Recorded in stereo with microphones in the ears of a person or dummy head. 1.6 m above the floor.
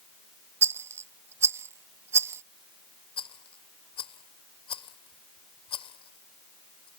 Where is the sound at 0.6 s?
10° right (ahead or behind).